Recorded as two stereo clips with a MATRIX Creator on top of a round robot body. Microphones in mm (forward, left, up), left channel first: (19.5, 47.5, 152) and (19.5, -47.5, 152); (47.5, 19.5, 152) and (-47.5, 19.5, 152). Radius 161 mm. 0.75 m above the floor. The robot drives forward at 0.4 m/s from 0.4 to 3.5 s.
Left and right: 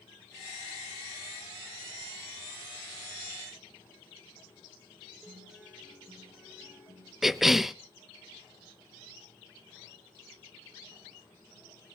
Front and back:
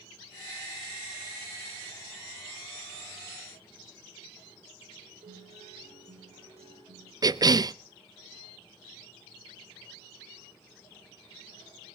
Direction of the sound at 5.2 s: 170° right.